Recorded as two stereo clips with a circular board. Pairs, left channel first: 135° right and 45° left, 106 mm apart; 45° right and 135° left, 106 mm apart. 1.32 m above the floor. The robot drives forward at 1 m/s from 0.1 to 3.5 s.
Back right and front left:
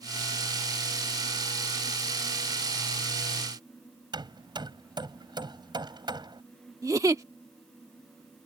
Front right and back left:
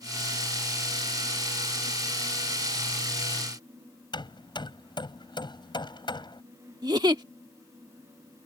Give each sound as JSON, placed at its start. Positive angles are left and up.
{"t": 4.1, "sound": "hammering", "azimuth_deg": 0}
{"t": 6.8, "sound": "a giggle", "azimuth_deg": 95}